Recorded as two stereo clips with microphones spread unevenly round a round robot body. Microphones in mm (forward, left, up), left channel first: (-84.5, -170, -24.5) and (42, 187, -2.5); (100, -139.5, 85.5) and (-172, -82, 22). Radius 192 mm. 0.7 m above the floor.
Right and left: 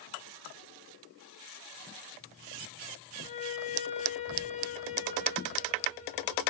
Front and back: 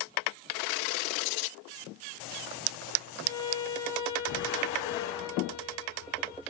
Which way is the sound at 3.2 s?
40° right.